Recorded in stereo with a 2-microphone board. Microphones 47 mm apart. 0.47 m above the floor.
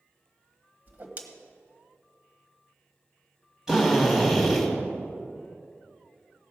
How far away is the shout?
I don't hear a shout.